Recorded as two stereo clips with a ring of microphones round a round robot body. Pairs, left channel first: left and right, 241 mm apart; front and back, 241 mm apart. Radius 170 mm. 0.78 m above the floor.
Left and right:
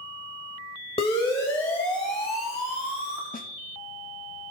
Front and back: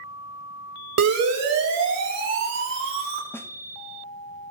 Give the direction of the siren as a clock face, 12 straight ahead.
7 o'clock.